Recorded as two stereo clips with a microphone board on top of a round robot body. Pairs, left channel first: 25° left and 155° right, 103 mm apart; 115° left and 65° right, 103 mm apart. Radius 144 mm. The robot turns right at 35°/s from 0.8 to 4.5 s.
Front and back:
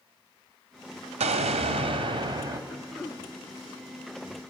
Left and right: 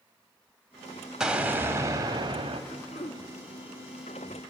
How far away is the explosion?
About 0.9 m.